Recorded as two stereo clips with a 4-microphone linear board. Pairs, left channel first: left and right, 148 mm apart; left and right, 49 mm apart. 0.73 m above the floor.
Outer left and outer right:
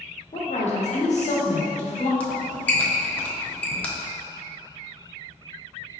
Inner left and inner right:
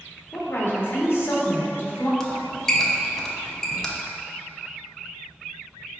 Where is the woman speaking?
55° left (ahead or behind), 0.9 m.